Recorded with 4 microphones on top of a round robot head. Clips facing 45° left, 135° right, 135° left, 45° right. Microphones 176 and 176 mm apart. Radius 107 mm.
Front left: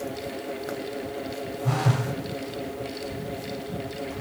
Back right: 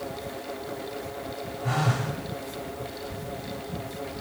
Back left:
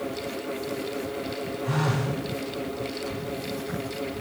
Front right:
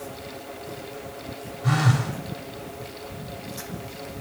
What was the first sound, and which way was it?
A phone buzzing, 45° right.